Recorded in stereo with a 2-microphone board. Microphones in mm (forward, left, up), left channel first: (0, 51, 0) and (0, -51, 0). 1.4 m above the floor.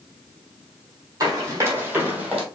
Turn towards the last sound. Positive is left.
turn(degrees=-5)  # may be behind; listen again after turning